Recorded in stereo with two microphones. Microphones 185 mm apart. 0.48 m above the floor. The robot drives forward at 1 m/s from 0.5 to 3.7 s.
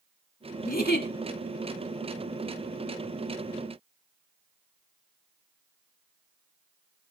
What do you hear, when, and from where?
0.7 s a giggle: 55° left (ahead or behind), 1.7 m; by 1.1 s 70° left (ahead or behind), 1.4 m